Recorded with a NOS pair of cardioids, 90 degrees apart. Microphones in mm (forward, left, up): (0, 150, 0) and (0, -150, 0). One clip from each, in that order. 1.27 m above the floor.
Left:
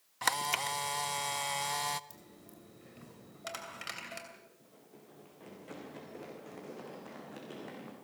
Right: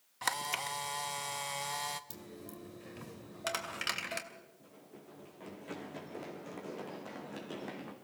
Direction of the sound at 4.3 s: 25° right.